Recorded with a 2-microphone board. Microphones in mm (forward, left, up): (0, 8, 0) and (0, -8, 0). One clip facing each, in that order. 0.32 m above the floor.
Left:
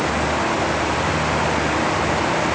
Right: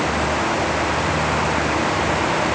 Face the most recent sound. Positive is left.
No sound to turn to.